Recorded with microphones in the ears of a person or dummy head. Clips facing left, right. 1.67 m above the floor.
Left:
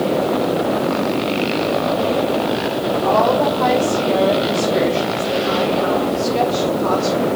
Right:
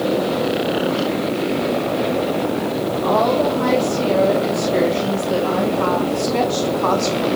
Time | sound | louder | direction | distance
3.0 | a woman speaking | left 1 dB | 30° right (ahead or behind) | 3 m